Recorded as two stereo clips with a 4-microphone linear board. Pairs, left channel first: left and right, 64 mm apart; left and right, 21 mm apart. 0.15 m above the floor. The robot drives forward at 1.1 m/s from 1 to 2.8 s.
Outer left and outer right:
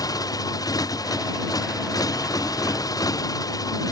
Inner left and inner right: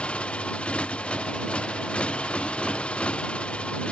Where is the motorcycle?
80° left.